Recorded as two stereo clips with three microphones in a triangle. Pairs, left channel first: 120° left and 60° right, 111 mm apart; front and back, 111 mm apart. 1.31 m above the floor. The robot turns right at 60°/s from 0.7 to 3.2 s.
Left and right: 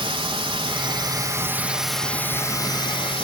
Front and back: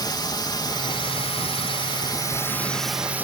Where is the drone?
40° right; by 3.2 s 110° left.